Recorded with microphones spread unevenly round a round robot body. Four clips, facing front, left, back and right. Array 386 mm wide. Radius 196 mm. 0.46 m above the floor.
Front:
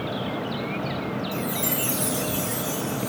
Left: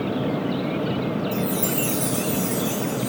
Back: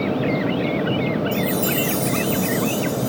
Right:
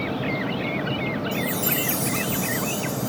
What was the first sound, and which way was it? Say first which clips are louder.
A chime: left 2 dB, back 7 dB; 110° right.